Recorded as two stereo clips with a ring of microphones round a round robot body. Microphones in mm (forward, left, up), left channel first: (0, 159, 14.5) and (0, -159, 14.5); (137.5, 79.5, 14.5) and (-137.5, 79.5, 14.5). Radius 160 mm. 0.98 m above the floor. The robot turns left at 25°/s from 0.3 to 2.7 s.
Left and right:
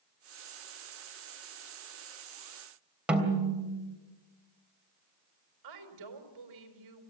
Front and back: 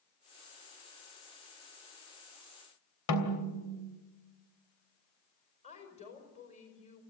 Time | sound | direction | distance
3.1 | a snare drum | 5° right | 3 m
5.6 | a woman speaking | 70° right | 4.5 m